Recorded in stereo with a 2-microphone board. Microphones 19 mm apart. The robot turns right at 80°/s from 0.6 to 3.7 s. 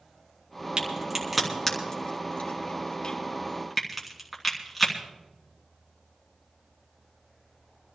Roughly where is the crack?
Right.